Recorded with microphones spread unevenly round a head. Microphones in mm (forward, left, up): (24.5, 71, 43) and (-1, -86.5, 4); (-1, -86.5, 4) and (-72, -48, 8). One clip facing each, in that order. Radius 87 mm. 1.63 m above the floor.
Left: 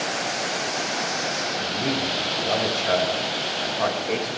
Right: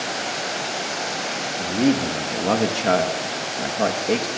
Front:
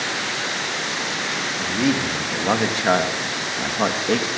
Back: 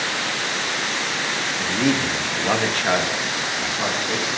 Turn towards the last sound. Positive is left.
turn(degrees=-45)